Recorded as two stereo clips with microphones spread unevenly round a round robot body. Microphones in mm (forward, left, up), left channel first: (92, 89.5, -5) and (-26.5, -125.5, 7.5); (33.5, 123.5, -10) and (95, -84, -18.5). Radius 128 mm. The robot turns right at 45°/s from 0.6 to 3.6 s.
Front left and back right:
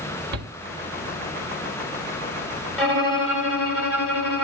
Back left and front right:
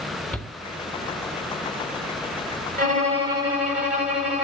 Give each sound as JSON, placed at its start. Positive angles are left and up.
{"t": 0.3, "sound": "a shout", "azimuth_deg": -170, "distance_m": 1.4}
{"t": 2.8, "sound": "a violin", "azimuth_deg": -25, "distance_m": 4.0}